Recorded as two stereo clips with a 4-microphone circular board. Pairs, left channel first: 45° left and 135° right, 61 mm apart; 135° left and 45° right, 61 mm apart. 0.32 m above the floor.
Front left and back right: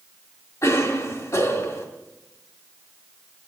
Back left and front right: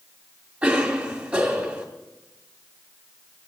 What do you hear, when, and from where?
0.6 s a cough: 25° left, 2.5 m